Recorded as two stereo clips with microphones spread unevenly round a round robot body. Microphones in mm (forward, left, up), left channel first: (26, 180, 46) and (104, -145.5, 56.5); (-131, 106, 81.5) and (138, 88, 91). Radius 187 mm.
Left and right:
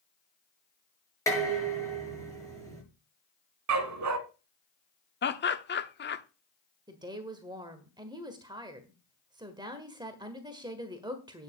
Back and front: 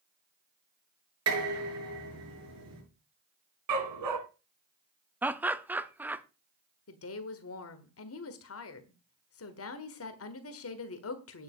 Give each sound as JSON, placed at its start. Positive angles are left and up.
{"t": 1.3, "sound": "dishes clattering", "azimuth_deg": 20, "distance_m": 7.0}
{"t": 3.7, "sound": "a dog barking", "azimuth_deg": -35, "distance_m": 1.5}
{"t": 5.2, "sound": "laughter", "azimuth_deg": 80, "distance_m": 1.0}
{"t": 6.9, "sound": "a woman speaking", "azimuth_deg": -155, "distance_m": 1.5}